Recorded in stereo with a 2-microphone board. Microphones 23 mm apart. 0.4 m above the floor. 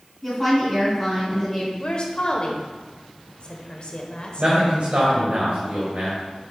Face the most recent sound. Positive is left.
turn(degrees=-55)  # may be behind; listen again after turning